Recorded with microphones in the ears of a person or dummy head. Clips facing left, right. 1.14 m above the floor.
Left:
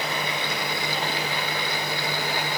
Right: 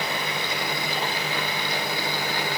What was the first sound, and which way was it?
Only background noise.